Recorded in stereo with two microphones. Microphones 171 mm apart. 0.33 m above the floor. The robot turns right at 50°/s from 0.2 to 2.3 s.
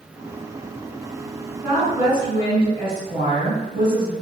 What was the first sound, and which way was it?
A woman speaking, 160° right.